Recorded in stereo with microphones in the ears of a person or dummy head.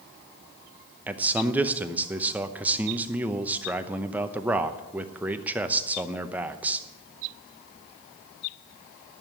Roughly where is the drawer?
No drawer in this recording.